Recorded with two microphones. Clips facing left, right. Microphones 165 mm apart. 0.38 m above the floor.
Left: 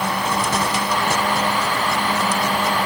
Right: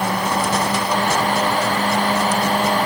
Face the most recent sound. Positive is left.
No sound to turn to.